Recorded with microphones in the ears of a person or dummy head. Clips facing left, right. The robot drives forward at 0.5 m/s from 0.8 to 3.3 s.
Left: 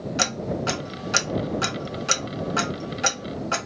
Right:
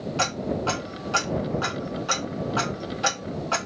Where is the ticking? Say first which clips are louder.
Right 1 dB; 20° left (ahead or behind), 0.9 m.